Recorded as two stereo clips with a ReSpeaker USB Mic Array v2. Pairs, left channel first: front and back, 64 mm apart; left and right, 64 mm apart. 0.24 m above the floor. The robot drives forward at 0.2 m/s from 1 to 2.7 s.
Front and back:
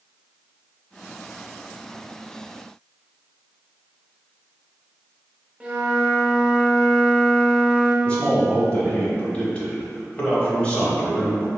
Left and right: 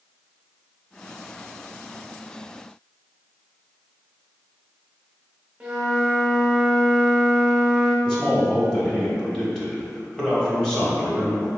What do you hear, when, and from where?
5.6 s a flute: 145° right, 0.6 m
8.1 s a man speaking: 30° left, 0.9 m